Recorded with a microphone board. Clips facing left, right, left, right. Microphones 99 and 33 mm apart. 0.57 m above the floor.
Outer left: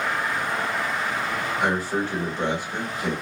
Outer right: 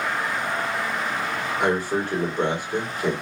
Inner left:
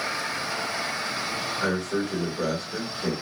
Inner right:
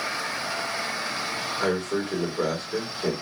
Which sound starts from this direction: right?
A man speaking, at 1.6 s.